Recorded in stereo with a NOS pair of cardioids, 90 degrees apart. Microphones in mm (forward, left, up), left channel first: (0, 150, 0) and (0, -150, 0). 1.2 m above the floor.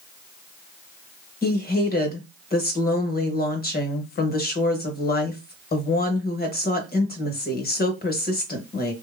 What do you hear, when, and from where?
1.4 s a woman speaking: 30° left, 1.0 m